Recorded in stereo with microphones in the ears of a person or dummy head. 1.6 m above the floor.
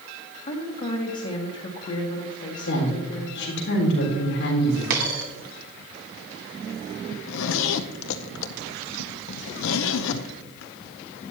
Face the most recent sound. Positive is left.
turn(degrees=70)  # may be behind; listen again after turning